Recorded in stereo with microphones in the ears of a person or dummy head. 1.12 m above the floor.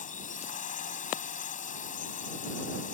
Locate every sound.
0.0 s a drone: 40° left (ahead or behind)